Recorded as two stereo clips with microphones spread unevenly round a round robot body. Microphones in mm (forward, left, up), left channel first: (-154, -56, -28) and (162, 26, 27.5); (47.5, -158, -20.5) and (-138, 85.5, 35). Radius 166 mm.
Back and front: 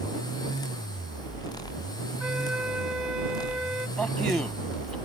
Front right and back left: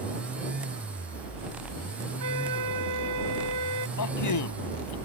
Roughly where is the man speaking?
Right.